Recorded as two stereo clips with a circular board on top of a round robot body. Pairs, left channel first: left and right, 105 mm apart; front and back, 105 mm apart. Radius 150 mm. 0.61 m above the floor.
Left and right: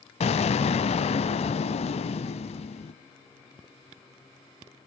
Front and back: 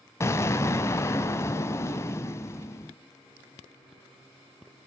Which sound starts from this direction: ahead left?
An explosion, at 0.2 s.